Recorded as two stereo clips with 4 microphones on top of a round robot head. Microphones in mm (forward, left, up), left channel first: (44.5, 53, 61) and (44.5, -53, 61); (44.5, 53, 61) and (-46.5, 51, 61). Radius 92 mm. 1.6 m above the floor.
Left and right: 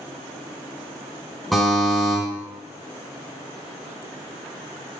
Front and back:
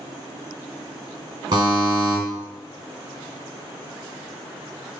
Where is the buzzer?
175° left, 1.5 m.